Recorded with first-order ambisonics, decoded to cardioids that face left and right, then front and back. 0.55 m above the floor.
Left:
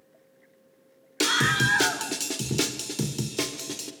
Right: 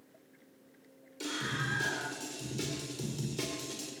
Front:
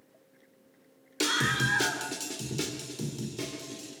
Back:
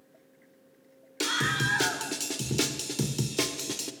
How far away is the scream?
About 1.8 m.